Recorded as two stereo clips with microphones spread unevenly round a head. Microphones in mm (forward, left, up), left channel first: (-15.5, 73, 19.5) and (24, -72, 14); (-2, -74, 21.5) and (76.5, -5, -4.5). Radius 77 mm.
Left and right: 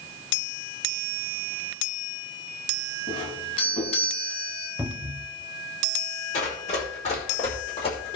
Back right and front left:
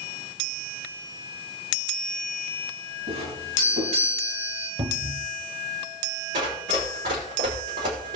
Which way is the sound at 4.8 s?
5° left.